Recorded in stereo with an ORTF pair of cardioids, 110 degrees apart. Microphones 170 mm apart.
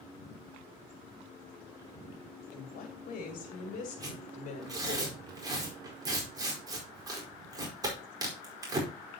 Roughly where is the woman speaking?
Ahead left.